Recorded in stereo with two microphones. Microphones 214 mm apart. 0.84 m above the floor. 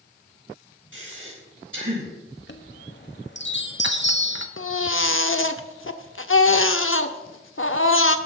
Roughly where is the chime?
Left.